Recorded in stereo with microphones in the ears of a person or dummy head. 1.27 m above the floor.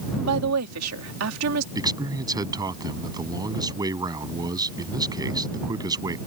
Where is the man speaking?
25° right (ahead or behind).